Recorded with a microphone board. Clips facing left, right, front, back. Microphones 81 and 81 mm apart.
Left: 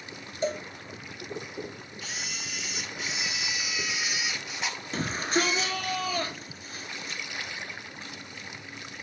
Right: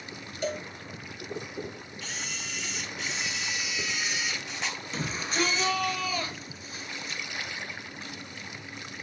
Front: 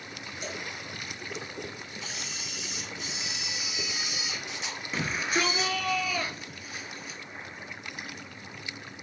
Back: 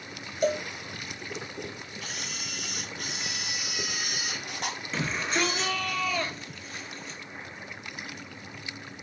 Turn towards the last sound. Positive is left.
turn(degrees=75)